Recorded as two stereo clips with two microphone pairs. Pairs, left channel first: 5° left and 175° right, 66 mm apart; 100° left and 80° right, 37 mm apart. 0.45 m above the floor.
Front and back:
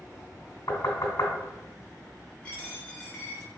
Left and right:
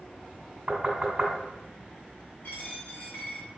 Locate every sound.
0.7 s knocking: 25° right, 1.8 m
2.4 s a dropped coin: 75° left, 1.3 m